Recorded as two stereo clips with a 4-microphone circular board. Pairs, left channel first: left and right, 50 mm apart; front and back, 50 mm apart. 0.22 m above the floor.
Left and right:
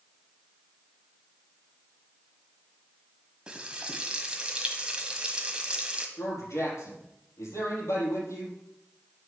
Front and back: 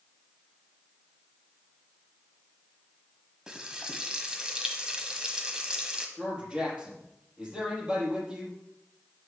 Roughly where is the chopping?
I don't hear chopping.